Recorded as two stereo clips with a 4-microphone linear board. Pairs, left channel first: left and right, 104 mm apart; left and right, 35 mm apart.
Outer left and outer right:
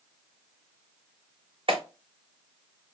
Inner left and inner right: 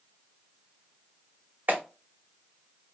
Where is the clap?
60° right (ahead or behind), 1.7 m.